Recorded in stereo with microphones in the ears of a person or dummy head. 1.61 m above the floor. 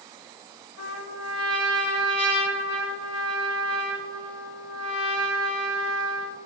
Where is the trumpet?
65° left (ahead or behind), 3.5 m.